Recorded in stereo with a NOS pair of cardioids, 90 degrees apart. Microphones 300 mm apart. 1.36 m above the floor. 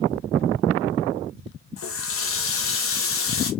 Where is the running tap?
50° left, 1.2 m.